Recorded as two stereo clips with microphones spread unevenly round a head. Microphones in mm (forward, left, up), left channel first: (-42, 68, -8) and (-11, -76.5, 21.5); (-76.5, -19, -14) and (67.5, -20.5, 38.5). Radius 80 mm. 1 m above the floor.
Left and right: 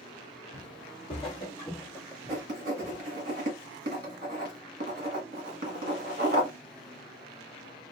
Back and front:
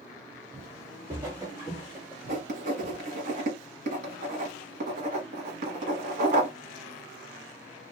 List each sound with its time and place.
0.5 s footsteps: 50° left, 1.9 m; by 3.0 s 70° right, 1.2 m
2.3 s writing: 40° right, 1.3 m